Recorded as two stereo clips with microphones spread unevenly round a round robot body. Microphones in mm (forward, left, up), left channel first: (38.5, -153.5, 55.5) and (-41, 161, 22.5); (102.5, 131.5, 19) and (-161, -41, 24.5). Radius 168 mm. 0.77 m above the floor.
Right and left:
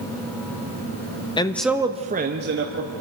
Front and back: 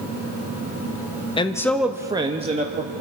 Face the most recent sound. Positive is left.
turn(degrees=150)